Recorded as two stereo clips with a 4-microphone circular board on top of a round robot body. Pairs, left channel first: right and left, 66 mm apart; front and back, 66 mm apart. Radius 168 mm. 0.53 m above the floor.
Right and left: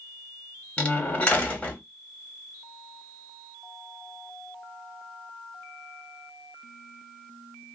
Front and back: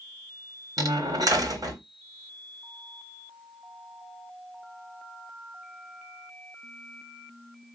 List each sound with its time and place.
0.8 s a door slam: 160° right, 1.8 m